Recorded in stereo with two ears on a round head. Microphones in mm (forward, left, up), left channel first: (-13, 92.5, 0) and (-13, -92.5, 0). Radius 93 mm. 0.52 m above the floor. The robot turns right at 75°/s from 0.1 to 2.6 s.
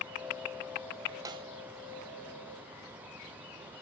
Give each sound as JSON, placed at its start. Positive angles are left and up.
{"t": 1.2, "sound": "a snare drum", "side_deg": -20, "distance_m": 1.0}